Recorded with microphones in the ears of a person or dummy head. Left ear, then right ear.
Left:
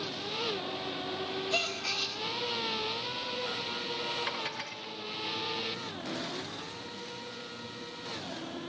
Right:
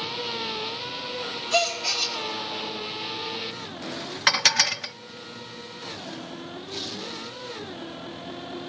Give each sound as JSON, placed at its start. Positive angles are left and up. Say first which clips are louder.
{"t": 1.5, "sound": "a gasp", "louder": "right 9 dB", "side_deg": 0, "distance_m": 2.0}
{"t": 4.3, "sound": "dishes clattering", "louder": "right 16 dB", "side_deg": -65, "distance_m": 0.5}